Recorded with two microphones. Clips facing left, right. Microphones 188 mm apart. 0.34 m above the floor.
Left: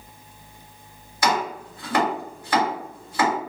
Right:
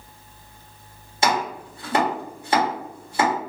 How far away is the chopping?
About 1.6 m.